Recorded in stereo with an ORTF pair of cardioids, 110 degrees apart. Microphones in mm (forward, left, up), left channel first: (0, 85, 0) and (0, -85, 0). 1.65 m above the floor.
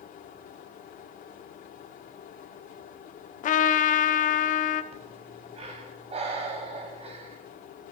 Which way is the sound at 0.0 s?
55° left.